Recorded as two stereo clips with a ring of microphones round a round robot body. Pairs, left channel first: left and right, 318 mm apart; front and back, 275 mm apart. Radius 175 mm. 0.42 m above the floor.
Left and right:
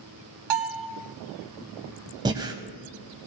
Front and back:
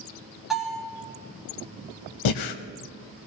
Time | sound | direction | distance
0.5 | a bell | 90° right | 1.1 m
2.2 | breathing | 10° right | 0.5 m